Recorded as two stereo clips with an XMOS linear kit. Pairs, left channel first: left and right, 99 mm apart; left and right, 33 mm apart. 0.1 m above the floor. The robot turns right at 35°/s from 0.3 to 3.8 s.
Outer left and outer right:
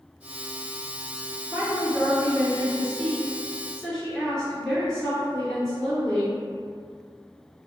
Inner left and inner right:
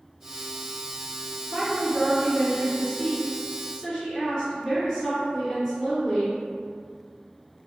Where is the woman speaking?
25° right (ahead or behind), 1.6 m; by 6.4 s 5° left (ahead or behind), 1.6 m.